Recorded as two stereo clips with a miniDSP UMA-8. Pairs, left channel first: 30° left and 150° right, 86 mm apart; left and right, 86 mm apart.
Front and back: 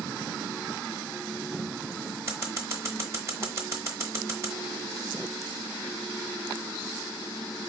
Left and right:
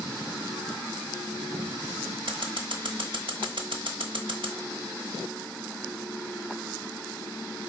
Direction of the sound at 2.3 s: 95° right.